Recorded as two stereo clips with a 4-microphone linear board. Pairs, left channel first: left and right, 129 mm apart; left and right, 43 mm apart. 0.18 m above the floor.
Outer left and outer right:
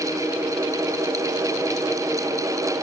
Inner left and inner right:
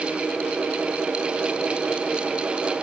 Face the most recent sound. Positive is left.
No sound to turn to.